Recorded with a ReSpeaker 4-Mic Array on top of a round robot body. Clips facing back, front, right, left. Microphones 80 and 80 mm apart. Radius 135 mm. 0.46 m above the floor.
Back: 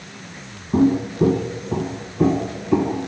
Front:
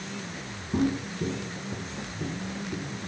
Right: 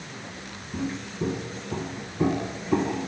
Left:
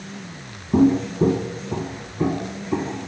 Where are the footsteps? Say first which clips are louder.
Back 10 dB, left 15 dB; 125° left; by 3.1 s 175° right.